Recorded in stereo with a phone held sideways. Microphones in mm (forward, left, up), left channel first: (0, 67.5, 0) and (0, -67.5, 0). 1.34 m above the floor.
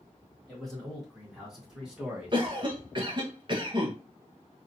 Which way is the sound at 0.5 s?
5° left (ahead or behind).